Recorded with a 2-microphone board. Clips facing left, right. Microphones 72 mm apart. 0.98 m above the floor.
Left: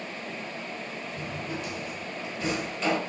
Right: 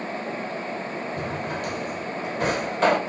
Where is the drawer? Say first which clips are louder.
Right 4 dB; 55° right (ahead or behind), 1.5 m.